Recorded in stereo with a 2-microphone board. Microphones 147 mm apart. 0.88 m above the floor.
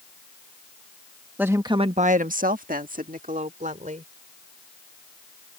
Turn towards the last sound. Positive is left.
turn(degrees=-55)  # may be behind; listen again after turning